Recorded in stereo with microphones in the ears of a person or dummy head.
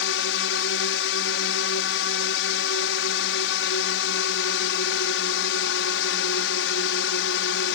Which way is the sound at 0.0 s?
65° left (ahead or behind).